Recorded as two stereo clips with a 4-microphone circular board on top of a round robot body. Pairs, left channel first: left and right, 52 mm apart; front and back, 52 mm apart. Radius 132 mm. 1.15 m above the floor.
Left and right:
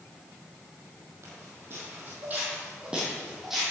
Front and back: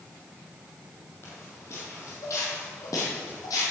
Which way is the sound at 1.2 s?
50° right.